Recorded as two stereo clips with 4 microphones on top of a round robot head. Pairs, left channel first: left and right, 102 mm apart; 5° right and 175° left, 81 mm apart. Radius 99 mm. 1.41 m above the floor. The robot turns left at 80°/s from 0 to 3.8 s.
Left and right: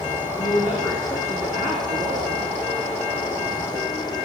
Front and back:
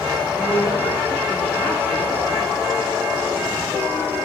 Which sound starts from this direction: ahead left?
A woman speaking, at 0.4 s.